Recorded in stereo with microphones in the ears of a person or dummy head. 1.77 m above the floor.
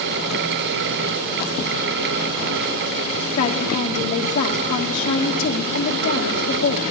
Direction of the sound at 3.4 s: 40° left (ahead or behind).